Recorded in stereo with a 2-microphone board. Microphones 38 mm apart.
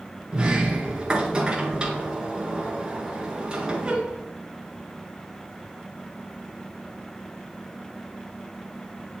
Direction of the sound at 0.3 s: 25° right (ahead or behind).